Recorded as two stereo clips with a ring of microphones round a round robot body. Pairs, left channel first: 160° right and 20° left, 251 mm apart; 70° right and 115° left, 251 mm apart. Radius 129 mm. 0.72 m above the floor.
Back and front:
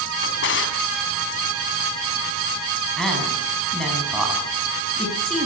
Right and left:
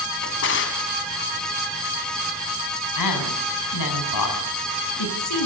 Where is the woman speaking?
70° right, 6 m.